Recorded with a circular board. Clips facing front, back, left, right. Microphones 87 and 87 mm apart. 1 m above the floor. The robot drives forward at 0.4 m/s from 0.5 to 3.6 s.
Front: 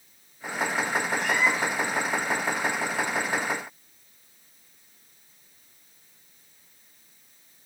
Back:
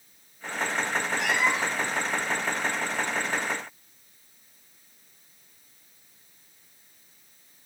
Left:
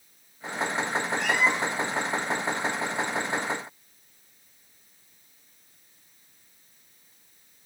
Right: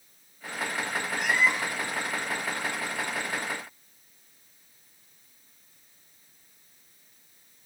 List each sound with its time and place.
1.2 s a cat meowing: 170° right, 2.5 m; by 1.9 s 175° right, 3 m